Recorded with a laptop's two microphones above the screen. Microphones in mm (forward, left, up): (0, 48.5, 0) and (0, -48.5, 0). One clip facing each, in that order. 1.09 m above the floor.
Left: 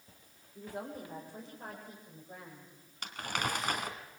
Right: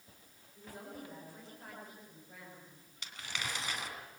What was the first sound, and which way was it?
A woman speaking, 40° left (ahead or behind).